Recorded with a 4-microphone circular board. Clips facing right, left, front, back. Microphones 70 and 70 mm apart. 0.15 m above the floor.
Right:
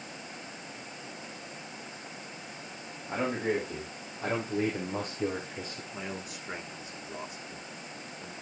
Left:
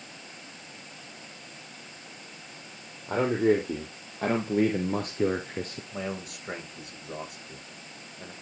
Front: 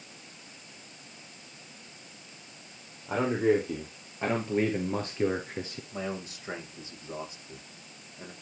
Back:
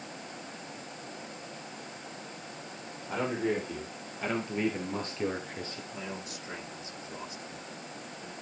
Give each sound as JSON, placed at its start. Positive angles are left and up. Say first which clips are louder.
{"t": 3.1, "sound": "a man speaking", "louder": "left 7 dB, front 5 dB", "azimuth_deg": 65, "distance_m": 4.5}
{"t": 5.9, "sound": "a man speaking", "louder": "left 6 dB, front 4 dB", "azimuth_deg": 55, "distance_m": 6.5}